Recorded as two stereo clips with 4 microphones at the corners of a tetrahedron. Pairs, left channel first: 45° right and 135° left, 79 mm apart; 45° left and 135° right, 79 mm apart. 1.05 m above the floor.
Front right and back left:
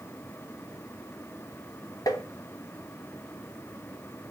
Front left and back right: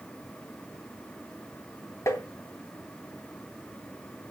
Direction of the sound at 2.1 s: 10° right.